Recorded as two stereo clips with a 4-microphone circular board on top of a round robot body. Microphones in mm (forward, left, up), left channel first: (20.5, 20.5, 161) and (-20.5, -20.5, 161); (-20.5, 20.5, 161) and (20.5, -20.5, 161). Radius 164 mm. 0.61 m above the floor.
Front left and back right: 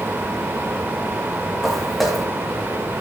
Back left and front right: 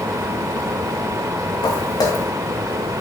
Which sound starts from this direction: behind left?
Footsteps, at 1.6 s.